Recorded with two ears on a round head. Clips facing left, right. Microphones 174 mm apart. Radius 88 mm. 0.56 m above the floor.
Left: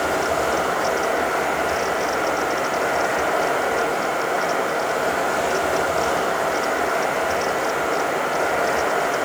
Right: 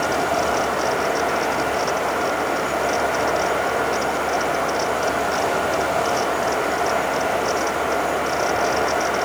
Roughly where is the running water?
Left.